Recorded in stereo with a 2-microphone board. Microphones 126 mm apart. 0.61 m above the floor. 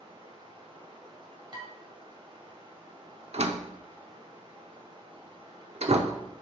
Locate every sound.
0.0 s running water: 45° right (ahead or behind), 2 m
1.5 s dishes clattering: 35° right (ahead or behind), 2 m
3.3 s a door slam: 55° right (ahead or behind), 0.6 m